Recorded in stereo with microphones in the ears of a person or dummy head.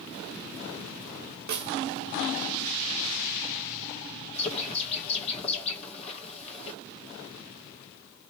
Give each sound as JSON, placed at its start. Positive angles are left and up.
{"t": 1.5, "sound": "a snare drum", "side_deg": -65, "distance_m": 0.8}
{"t": 4.3, "sound": "a bird", "side_deg": 40, "distance_m": 1.1}